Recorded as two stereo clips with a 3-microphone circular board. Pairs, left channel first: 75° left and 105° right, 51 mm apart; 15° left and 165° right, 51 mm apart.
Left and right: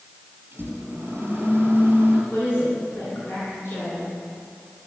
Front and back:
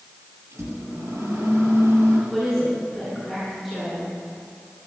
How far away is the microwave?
About 5.5 m.